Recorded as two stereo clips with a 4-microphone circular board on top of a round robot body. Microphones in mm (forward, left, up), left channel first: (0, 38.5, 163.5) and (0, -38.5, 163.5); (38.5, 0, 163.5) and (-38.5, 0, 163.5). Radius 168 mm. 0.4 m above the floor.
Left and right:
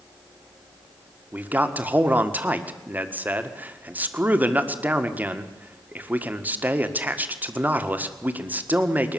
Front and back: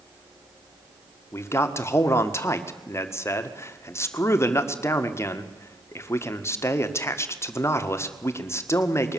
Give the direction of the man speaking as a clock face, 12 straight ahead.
1 o'clock.